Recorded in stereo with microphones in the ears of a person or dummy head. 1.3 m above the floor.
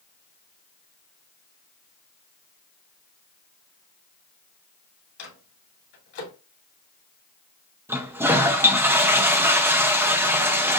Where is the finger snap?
I don't hear a finger snap.